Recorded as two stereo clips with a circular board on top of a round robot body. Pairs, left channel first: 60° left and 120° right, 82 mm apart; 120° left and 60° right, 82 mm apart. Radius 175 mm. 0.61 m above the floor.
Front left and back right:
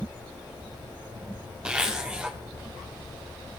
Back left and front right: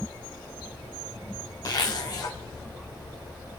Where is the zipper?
160° left, 1.1 m.